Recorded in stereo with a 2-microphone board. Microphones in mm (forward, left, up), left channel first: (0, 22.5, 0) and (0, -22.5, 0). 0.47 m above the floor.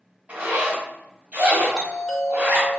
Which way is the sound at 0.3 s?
40° right (ahead or behind).